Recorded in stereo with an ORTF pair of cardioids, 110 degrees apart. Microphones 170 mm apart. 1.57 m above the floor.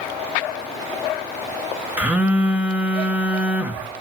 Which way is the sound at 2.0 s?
10° right.